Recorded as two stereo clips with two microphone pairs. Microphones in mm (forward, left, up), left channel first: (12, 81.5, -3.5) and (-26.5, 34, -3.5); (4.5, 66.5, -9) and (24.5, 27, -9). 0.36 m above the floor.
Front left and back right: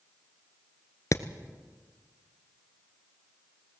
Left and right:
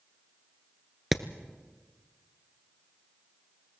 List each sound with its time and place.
1.1 s hammering: 25° left, 1.2 m